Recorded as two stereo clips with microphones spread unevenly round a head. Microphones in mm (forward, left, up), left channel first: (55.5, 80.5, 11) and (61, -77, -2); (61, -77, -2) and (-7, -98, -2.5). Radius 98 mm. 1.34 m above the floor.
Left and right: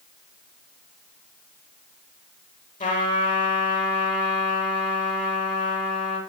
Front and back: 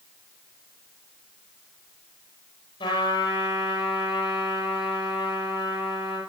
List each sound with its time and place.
2.8 s a trumpet: 55° left, 9 m